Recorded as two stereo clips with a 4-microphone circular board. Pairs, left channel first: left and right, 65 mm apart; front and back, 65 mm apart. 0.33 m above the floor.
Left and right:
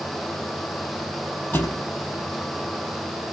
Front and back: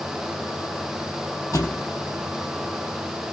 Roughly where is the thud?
Ahead left.